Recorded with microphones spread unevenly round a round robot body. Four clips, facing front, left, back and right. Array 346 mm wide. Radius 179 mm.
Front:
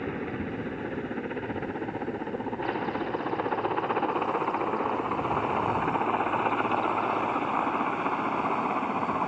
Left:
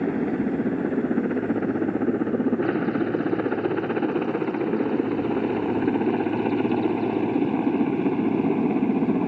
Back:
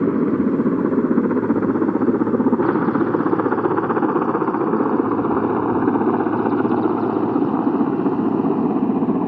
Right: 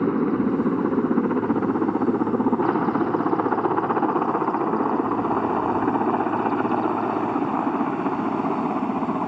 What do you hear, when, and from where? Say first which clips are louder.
0.0 s a helicopter: right 3 dB, back 15 dB; 165° right; by 9.3 s 165° left